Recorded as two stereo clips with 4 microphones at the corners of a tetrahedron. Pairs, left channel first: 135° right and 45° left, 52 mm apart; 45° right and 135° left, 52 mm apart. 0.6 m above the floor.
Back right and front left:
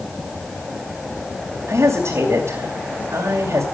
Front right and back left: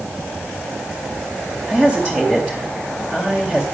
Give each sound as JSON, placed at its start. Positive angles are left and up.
{"t": 1.7, "sound": "a woman speaking", "azimuth_deg": 25, "distance_m": 3.0}